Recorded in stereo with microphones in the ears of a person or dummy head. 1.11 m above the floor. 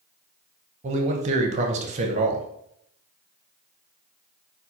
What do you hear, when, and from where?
0.8 s a man speaking: 35° right (ahead or behind), 0.7 m